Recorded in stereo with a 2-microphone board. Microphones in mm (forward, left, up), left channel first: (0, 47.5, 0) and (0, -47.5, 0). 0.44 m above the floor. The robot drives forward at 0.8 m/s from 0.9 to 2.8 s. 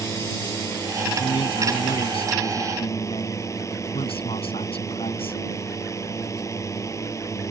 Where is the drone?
30° left (ahead or behind).